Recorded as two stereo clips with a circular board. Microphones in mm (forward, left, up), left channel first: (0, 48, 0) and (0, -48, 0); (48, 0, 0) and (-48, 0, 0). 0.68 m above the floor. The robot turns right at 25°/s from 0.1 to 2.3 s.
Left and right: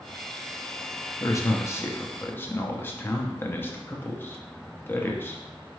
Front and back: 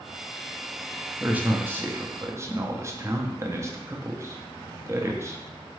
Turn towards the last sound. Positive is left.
turn(degrees=145)